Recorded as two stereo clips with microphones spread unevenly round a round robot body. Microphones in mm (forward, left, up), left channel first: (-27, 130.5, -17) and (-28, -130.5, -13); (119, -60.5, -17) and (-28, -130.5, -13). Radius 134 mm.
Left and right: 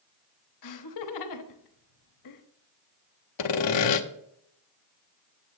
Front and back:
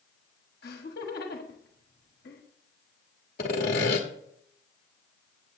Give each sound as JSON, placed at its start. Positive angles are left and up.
{"t": 0.6, "sound": "laughter", "azimuth_deg": 75, "distance_m": 1.2}
{"t": 3.4, "sound": "sawing", "azimuth_deg": 85, "distance_m": 0.9}